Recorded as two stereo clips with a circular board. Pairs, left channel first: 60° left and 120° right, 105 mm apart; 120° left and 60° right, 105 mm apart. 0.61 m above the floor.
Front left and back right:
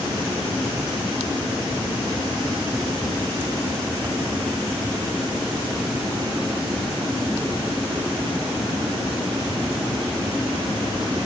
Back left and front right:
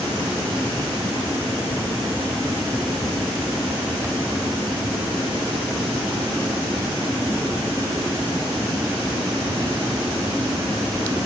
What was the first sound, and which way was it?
Only background noise.